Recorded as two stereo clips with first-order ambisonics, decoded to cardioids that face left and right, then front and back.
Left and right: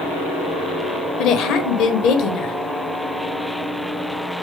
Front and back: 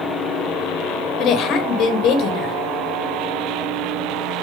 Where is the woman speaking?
50° left, 1.2 m.